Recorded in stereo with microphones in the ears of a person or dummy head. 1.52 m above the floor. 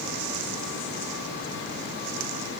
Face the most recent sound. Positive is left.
No sound to turn to.